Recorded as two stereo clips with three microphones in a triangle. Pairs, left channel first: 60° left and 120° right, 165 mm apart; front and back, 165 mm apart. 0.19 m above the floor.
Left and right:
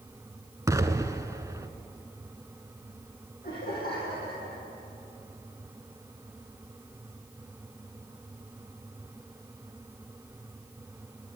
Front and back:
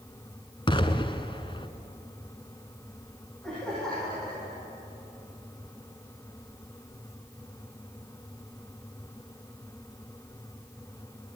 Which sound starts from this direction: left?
Laughter, at 3.4 s.